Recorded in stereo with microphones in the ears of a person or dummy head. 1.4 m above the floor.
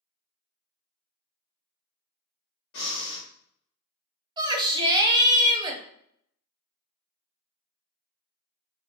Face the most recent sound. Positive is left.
turn(degrees=-25)  # may be behind; listen again after turning